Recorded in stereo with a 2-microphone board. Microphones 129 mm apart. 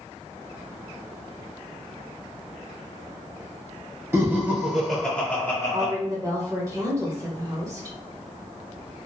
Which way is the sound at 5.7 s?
25° right (ahead or behind).